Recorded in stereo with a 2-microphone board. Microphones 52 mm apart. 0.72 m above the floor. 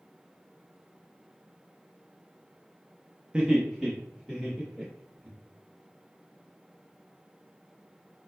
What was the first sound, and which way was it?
Laughter, 20° right (ahead or behind).